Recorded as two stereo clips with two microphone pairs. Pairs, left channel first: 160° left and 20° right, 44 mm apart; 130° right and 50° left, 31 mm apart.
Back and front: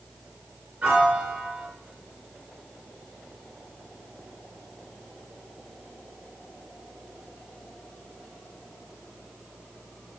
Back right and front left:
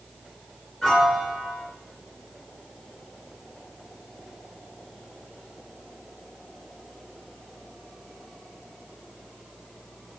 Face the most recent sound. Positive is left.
turn(degrees=-50)